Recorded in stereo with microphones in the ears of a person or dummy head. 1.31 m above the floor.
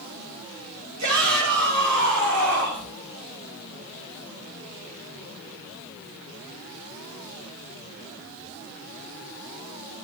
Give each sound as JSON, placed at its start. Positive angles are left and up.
{"t": 1.0, "sound": "a shout", "side_deg": -80, "distance_m": 6.5}